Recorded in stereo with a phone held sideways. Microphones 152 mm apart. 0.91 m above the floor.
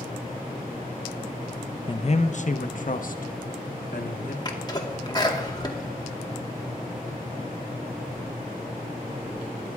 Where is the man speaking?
35° left (ahead or behind), 0.6 m; by 4.3 s 70° left (ahead or behind), 1.7 m.